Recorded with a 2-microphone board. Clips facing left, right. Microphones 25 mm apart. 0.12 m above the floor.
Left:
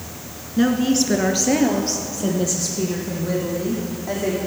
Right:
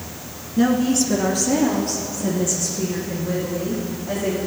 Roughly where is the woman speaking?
Centre.